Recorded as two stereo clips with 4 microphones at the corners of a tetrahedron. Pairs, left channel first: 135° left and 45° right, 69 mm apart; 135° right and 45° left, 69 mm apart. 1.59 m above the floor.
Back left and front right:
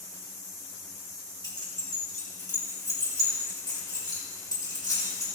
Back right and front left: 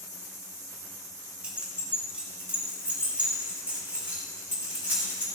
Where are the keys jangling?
120° left, 2.5 m; by 5.2 s 115° left, 6 m.